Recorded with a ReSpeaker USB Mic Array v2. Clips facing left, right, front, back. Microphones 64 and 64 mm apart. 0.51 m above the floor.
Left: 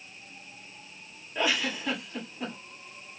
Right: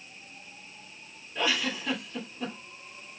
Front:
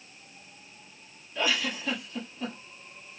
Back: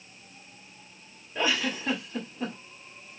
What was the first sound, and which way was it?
A giggle, 155° left.